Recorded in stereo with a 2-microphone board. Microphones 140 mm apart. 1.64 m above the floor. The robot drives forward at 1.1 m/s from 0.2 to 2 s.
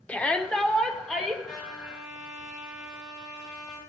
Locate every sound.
0.1 s a shout: 10° left (ahead or behind), 1.1 m; by 1.3 s 5° left (ahead or behind), 2.5 m
1.4 s a trumpet: 85° left, 7 m; by 3.8 s 80° left, 7 m